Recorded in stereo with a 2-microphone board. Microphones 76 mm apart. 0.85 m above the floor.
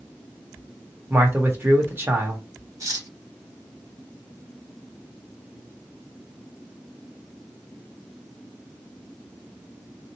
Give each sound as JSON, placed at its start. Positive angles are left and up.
{"t": 1.1, "sound": "a man speaking", "side_deg": -35, "distance_m": 1.3}
{"t": 2.8, "sound": "cutlery clinking", "side_deg": -45, "distance_m": 0.8}